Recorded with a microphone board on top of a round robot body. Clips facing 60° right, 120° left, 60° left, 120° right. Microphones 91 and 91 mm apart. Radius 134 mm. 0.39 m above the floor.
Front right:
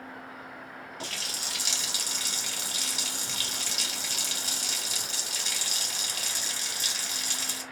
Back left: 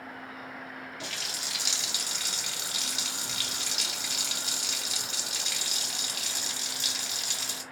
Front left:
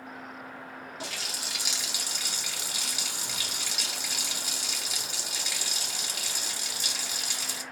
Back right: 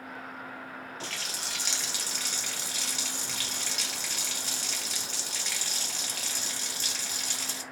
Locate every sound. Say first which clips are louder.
1.0 s a running tap: front right 1 dB, even; 20° right, 1.3 m